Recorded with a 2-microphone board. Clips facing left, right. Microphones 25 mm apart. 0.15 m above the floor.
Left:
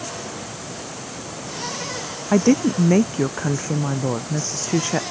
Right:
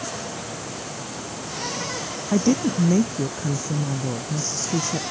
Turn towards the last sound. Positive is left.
turn(degrees=50)  # may be behind; listen again after turning